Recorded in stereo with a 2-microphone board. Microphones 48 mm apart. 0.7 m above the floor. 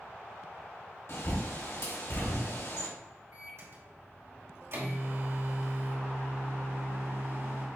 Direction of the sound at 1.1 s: 65° left (ahead or behind).